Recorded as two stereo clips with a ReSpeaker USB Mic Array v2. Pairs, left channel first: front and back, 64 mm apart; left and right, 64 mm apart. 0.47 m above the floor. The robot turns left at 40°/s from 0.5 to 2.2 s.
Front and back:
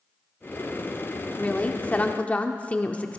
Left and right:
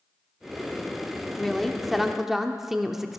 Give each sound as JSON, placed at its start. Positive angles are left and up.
{"t": 1.4, "sound": "a woman speaking", "azimuth_deg": 20, "distance_m": 0.7}